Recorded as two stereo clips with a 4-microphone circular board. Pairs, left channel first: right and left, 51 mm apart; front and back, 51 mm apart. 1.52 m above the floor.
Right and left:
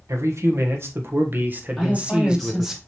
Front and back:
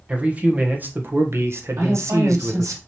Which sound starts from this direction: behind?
A woman speaking, at 1.8 s.